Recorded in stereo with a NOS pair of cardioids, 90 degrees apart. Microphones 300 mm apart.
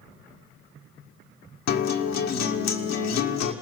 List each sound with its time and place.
1.7 s a guitar: 65° left, 1.8 m